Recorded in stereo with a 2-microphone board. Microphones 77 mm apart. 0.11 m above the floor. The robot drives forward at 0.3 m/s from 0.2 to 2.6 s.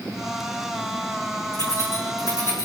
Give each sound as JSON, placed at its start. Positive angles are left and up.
{"t": 1.5, "sound": "keys jangling", "side_deg": 50, "distance_m": 5.0}